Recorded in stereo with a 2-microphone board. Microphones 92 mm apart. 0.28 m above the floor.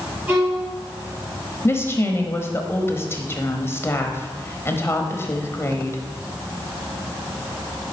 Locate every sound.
0.3 s a violin: 20° right (ahead or behind), 3.5 m
1.6 s a woman speaking: 30° left (ahead or behind), 1.0 m